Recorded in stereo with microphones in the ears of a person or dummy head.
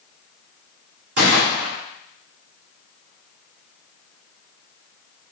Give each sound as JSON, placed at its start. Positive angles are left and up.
{"t": 1.2, "sound": "a gunshot", "side_deg": -60, "distance_m": 2.5}